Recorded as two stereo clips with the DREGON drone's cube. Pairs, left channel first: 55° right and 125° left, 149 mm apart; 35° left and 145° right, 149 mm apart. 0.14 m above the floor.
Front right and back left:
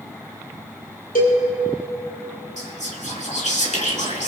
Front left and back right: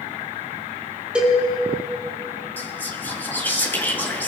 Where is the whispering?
40° right, 2 m.